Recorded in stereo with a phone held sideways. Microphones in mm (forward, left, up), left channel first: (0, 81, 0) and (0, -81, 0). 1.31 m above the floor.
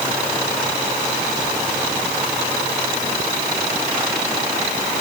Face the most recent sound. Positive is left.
No sound to turn to.